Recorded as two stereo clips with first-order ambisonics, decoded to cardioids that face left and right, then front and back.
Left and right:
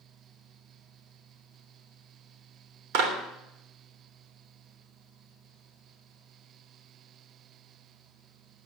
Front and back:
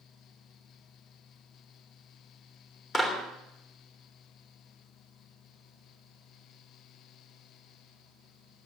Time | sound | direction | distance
2.9 | a clap | 75° right | 3 m